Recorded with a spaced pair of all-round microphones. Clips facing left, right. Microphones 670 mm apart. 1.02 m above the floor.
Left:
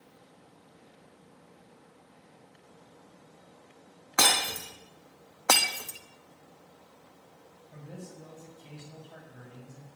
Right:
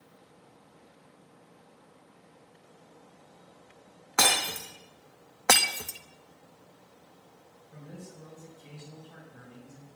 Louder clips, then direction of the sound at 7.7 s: Left 1 dB; 10° left (ahead or behind).